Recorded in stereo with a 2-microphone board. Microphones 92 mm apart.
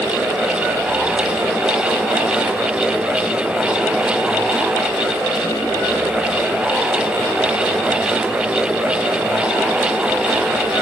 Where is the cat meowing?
I don't hear a cat meowing.